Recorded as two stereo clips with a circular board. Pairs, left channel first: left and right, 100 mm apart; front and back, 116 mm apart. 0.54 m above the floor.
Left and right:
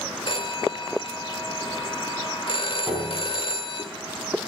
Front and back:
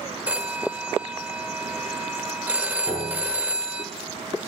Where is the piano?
Straight ahead, 3.5 m.